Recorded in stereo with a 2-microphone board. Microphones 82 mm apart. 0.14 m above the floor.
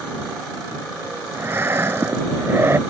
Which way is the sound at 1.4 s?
30° right (ahead or behind).